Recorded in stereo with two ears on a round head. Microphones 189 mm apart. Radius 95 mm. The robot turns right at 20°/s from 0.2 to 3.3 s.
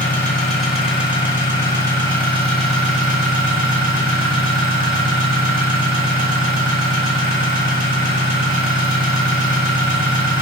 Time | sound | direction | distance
0.0 | an engine running | 170° left | 2.0 m